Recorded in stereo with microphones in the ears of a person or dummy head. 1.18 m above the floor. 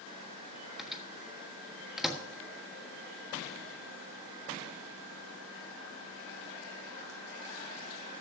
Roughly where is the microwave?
Centre.